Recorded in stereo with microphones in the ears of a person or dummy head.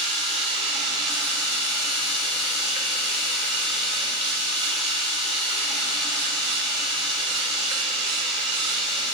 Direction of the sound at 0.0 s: 30° right (ahead or behind).